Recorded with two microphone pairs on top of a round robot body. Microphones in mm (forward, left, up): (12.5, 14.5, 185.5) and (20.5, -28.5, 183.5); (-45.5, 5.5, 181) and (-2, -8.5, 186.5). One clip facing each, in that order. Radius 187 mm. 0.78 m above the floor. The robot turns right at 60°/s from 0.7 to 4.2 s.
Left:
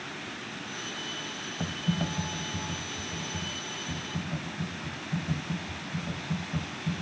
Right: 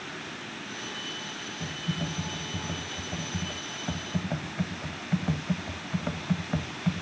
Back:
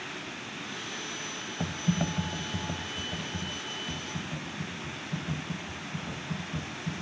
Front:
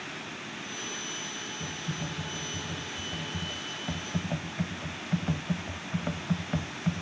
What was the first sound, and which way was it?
Typing on a keyboard, 140° left.